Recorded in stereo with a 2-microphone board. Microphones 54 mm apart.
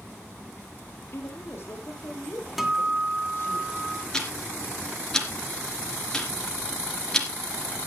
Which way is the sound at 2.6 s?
5° right (ahead or behind).